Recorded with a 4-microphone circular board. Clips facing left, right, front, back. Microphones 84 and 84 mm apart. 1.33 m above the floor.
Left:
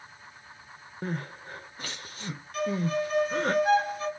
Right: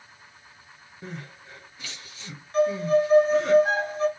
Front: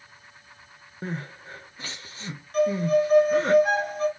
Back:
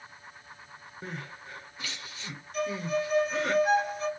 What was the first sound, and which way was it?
Crying, 55° left.